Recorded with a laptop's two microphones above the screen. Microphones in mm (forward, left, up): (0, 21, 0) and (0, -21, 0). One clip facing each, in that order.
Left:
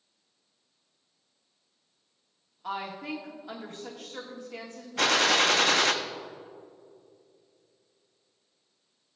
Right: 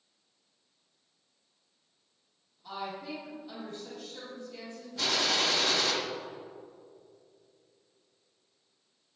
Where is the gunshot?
65° left (ahead or behind), 0.6 m.